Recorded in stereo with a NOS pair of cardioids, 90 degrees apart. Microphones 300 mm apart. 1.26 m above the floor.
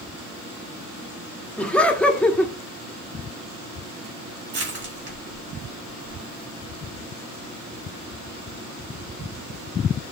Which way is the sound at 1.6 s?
5° left.